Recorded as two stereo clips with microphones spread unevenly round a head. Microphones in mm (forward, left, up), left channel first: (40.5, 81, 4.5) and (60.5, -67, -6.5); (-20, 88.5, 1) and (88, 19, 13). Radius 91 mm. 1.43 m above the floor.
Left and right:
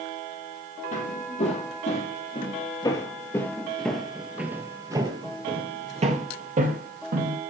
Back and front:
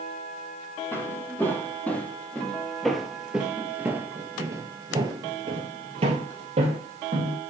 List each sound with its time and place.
0.9 s footsteps: 75° left, 3 m; by 7.4 s 65° right, 2.5 m